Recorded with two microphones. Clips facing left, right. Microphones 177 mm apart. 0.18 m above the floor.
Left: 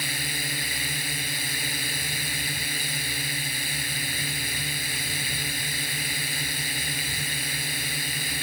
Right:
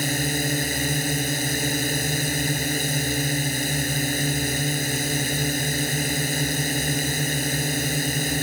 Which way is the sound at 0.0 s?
45° right (ahead or behind).